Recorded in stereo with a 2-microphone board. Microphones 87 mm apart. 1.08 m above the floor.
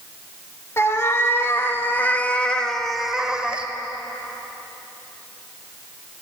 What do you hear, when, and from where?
0.8 s a cat meowing: 30° left (ahead or behind), 1.4 m; by 3.7 s 15° right (ahead or behind), 1.1 m